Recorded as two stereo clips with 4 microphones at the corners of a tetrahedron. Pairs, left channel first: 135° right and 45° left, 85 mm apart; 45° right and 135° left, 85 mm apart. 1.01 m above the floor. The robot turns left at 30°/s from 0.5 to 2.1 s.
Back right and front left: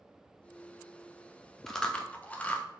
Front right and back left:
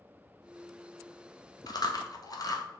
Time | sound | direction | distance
1.7 | chewing | 50° right | 0.5 m